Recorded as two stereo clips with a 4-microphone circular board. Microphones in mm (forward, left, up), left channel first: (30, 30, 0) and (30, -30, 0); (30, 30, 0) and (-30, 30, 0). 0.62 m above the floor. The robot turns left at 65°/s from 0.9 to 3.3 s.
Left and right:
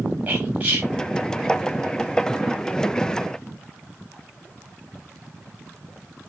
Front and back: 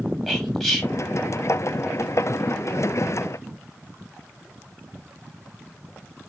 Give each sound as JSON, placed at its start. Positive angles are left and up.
{"t": 0.3, "sound": "whispering", "azimuth_deg": -70, "distance_m": 1.2}